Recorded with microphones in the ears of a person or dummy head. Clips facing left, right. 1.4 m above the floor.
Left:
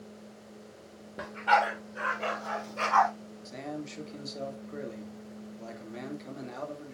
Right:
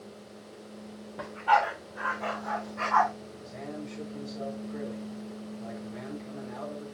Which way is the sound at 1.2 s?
15° left (ahead or behind).